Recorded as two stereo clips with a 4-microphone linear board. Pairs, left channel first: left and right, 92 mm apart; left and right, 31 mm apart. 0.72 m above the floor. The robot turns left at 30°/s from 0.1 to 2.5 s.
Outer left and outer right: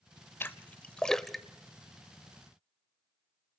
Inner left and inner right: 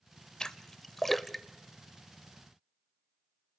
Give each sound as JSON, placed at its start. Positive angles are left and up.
{"t": 0.4, "sound": "a splash", "side_deg": 25, "distance_m": 0.6}